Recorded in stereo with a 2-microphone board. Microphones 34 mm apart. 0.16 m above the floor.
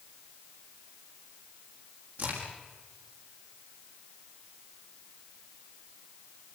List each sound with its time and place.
2.2 s a crack: 65° right (ahead or behind), 7 m